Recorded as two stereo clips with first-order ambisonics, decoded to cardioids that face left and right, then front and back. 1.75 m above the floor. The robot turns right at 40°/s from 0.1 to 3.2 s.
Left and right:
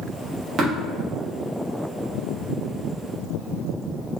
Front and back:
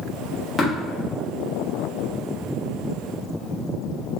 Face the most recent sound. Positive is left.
turn(degrees=40)